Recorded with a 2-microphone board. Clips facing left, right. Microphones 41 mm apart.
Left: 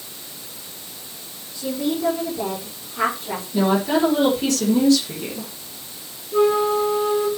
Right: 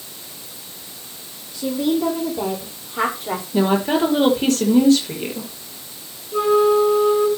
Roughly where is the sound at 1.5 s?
Right.